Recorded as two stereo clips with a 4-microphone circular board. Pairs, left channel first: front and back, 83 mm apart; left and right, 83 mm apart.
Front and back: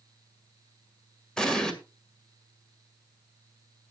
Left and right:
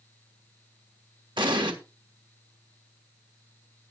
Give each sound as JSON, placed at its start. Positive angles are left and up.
{"t": 1.4, "sound": "an explosion", "azimuth_deg": -80, "distance_m": 2.0}